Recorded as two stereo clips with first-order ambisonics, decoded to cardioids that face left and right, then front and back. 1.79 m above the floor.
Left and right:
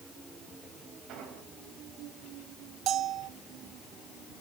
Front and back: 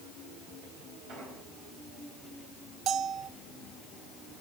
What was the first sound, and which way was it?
An explosion, 135° right.